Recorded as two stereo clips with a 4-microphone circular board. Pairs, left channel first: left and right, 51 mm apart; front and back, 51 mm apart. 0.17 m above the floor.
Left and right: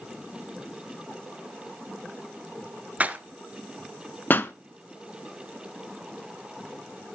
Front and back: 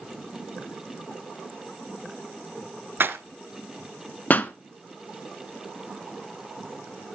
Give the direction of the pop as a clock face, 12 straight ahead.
10 o'clock.